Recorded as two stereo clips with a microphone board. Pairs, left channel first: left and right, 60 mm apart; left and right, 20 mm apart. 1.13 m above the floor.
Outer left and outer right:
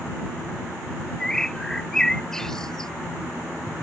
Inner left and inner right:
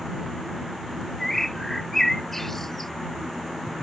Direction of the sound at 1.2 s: 10° left (ahead or behind).